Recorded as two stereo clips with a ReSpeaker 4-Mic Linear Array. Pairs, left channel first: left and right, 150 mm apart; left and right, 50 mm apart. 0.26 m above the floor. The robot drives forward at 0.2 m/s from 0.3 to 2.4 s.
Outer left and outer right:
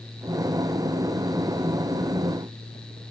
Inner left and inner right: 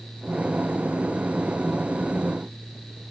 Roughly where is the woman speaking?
I don't hear a woman speaking.